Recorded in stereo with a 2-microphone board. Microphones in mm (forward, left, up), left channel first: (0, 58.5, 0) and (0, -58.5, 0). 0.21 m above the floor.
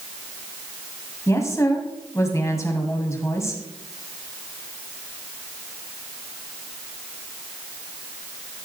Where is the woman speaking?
25° left (ahead or behind), 1.5 m.